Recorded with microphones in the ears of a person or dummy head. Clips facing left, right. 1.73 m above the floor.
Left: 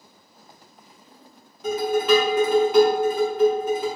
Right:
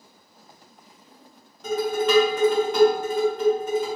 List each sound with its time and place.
1.6 s dishes clattering: 5° left (ahead or behind), 1.0 m